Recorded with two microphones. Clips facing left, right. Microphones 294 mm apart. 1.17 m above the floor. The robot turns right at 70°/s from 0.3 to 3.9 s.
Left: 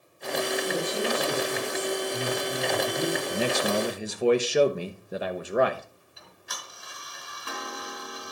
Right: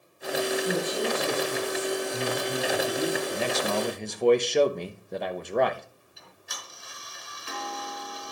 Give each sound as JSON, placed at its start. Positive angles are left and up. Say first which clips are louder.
{"t": 0.7, "sound": "a woman speaking", "louder": "right 1 dB", "azimuth_deg": -85, "distance_m": 6.5}
{"t": 3.3, "sound": "a man speaking", "louder": "left 2 dB", "azimuth_deg": 130, "distance_m": 0.8}
{"t": 6.2, "sound": "ticking", "louder": "left 2 dB", "side_deg": 60, "distance_m": 2.0}